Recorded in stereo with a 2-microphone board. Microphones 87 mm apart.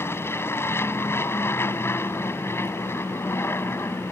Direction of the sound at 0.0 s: 30° left (ahead or behind).